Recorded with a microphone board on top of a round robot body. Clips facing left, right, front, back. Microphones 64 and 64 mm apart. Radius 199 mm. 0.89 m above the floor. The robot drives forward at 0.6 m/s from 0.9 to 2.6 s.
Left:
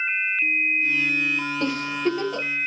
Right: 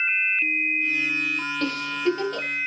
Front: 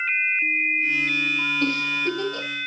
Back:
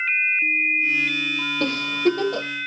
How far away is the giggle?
About 1.4 m.